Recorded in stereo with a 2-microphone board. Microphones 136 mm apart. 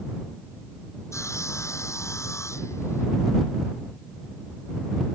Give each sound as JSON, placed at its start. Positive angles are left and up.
{"t": 1.1, "sound": "sawing", "side_deg": 20}